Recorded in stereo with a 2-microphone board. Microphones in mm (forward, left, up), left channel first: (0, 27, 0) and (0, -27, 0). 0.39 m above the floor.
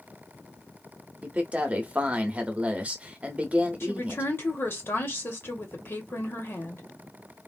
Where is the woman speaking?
45° left (ahead or behind), 1.3 m.